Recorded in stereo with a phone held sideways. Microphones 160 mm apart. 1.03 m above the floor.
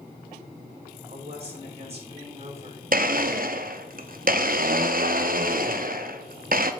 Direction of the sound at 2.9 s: 60° right (ahead or behind).